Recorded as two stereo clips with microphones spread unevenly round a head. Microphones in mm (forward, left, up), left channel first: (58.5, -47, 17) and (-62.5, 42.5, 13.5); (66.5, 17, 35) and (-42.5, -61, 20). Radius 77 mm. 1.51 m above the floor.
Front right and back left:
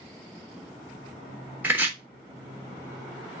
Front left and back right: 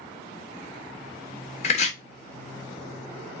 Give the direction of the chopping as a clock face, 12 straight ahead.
10 o'clock.